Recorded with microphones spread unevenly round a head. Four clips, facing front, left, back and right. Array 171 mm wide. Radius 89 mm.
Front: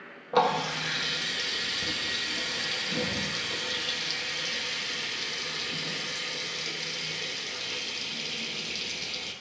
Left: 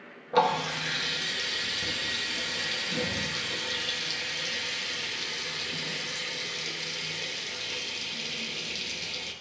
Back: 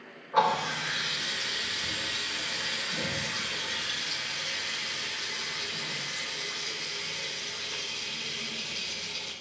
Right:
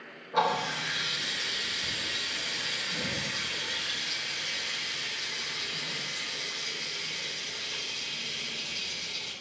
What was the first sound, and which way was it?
A running tap, 45° left.